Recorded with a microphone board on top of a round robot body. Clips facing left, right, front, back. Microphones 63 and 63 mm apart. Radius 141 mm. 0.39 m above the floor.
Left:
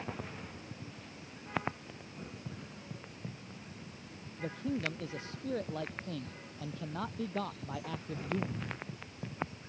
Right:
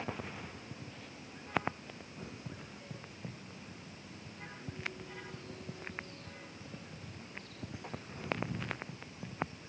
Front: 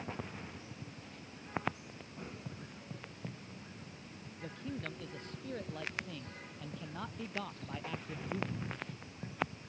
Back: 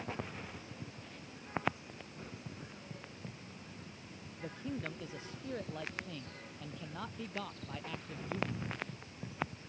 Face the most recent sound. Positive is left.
turn(degrees=80)